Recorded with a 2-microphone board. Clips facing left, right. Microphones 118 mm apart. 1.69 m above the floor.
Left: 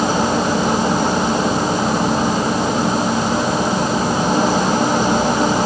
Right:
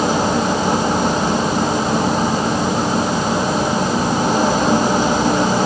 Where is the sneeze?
No sneeze in this recording.